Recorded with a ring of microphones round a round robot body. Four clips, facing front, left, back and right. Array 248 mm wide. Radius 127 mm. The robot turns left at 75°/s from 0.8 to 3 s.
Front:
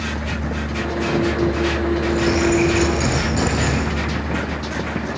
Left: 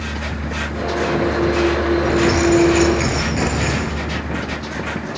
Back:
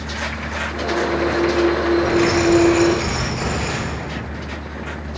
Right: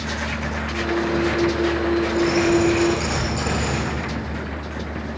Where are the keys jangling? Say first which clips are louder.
Left 4 dB, back 2 dB; 120° left, 6.5 m; by 3.9 s 45° left, 6.5 m.